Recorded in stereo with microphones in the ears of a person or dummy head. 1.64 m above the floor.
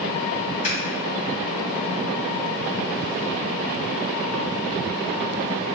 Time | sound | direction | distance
0.6 | scissors | 40° left (ahead or behind) | 1.5 m